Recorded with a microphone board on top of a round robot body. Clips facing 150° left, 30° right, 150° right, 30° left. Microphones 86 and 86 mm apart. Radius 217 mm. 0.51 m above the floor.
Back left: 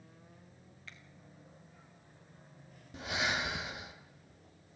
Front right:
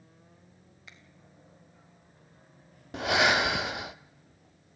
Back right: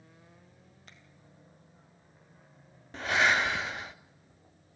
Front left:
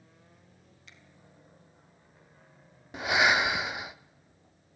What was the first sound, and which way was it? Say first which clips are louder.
A finger snap: even, even; 105° right.